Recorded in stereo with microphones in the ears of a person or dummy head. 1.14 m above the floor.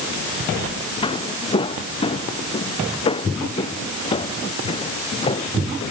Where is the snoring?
No snoring in this recording.